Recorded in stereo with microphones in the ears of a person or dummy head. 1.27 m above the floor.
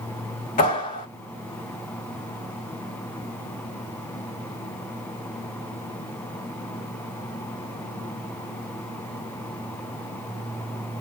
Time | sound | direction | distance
0.6 | a clap | 35° left (ahead or behind) | 1.5 m